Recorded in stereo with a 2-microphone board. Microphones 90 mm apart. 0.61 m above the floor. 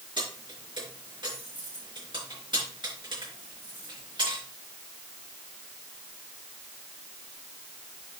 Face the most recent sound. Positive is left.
turn(degrees=-60)  # may be behind; listen again after turning